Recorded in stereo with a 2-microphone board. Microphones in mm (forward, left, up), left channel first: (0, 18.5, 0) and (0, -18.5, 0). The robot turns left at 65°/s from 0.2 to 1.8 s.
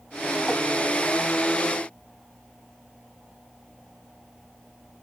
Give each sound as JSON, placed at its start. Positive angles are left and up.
{"t": 0.5, "sound": "tapping", "side_deg": 30, "distance_m": 3.5}